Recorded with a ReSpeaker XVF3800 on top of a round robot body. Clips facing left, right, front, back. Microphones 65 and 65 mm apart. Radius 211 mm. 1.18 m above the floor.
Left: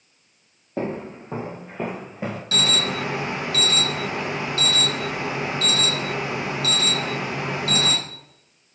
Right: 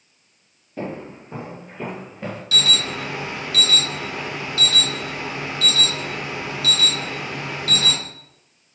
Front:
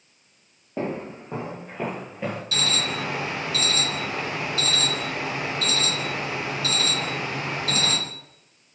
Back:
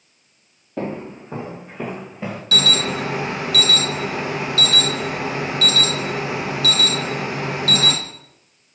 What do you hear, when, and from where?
0.8 s footsteps: 70° left, 2 m; by 2.4 s 105° left, 1.3 m
2.5 s an alarm: 145° left, 0.8 m